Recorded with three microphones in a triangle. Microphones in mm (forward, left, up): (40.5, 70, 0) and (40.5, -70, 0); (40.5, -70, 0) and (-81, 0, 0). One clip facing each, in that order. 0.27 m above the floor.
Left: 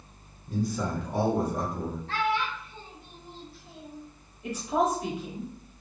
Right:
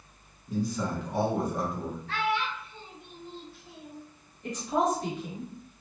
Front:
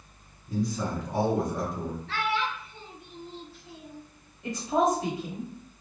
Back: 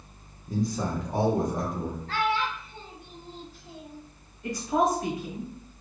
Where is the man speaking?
100° left, 1.8 m; by 2.0 s 160° left, 1.5 m.